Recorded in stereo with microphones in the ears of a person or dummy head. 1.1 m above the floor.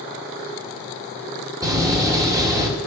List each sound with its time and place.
1.6 s a door slam: 20° right (ahead or behind), 2.5 m